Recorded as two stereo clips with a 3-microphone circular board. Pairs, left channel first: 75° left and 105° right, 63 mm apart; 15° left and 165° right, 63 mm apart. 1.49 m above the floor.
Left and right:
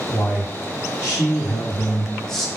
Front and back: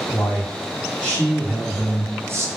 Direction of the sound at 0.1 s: 70° left.